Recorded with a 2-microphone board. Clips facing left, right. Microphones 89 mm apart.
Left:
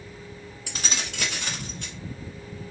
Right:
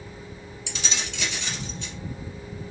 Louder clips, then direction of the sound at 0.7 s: Even; 45° left (ahead or behind).